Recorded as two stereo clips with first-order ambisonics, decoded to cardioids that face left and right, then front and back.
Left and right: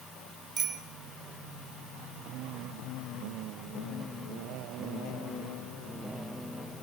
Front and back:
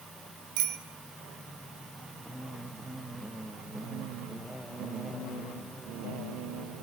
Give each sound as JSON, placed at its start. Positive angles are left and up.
{"t": 0.6, "sound": "a bicycle bell", "azimuth_deg": -160, "distance_m": 3.0}